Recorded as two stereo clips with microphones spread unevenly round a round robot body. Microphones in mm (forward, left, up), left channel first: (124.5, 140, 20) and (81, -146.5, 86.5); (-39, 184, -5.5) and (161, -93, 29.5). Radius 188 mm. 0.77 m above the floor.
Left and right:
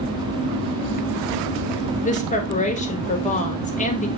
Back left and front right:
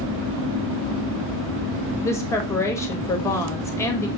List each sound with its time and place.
2.0 s a woman speaking: 55° left, 1.1 m